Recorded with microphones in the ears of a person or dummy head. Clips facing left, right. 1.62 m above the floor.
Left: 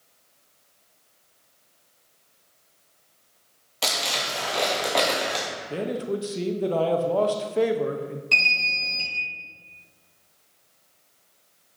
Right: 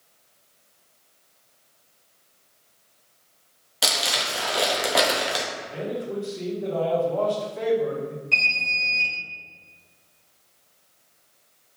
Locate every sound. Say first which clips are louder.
3.8 s crumpling: right 1 dB; 10° right (ahead or behind), 0.6 m
5.7 s a man speaking: left 3 dB; 50° left (ahead or behind), 0.6 m
8.3 s an alarm: left 1 dB; 60° left (ahead or behind), 1.5 m